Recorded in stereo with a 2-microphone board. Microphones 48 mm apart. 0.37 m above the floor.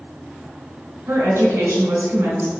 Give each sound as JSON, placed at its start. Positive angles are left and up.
{"t": 1.1, "sound": "a woman speaking", "side_deg": -75, "distance_m": 3.0}